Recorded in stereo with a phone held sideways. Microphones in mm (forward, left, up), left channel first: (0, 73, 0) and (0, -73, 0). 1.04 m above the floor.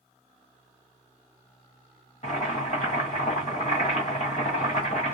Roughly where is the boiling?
Left.